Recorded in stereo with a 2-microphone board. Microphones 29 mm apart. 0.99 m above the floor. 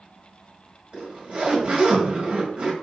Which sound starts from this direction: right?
A zipper, at 0.9 s.